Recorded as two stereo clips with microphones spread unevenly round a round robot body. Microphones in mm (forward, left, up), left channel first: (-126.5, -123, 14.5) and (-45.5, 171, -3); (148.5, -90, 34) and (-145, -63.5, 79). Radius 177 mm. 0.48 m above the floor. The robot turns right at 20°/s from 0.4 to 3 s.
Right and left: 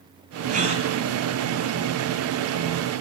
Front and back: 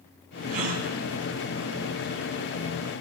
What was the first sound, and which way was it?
A gasp, 140° left.